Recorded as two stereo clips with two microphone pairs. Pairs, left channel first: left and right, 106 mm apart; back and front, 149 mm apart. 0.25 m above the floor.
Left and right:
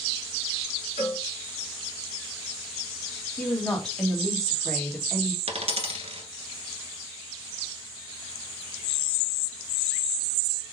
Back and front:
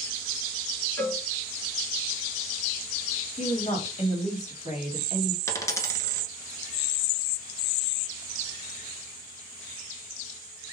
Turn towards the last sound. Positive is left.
turn(degrees=-110)